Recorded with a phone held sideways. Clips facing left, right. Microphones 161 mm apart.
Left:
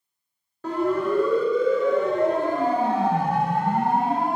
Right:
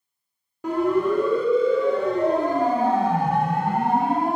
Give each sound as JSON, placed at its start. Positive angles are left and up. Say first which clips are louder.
{"t": 0.6, "sound": "a siren", "louder": "right 2 dB", "side_deg": -15, "distance_m": 5.0}